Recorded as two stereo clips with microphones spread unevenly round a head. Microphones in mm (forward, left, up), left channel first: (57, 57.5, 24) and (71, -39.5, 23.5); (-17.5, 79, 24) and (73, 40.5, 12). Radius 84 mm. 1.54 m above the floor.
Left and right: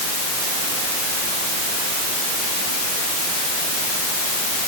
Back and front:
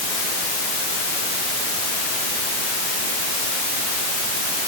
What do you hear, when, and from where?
Only background noise.